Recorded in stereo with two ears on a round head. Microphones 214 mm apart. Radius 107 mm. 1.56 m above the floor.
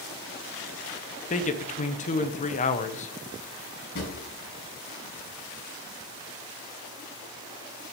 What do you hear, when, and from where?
1.3 s a man speaking: 30° left (ahead or behind), 1.0 m
4.0 s a drawer: 45° left (ahead or behind), 4.5 m